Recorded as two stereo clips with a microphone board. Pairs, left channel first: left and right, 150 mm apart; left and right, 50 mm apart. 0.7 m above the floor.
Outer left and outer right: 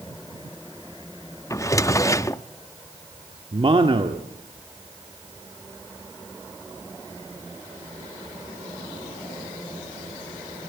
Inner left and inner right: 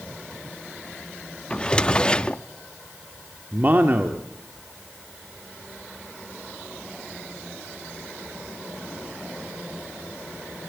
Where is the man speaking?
35° right (ahead or behind), 1.5 m.